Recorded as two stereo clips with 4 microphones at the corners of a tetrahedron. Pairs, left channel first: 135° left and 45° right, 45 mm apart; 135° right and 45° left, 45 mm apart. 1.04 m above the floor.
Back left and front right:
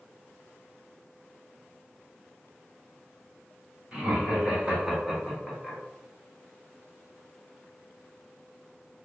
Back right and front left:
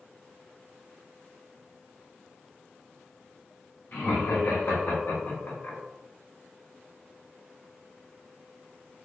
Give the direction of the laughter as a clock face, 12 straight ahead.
4 o'clock.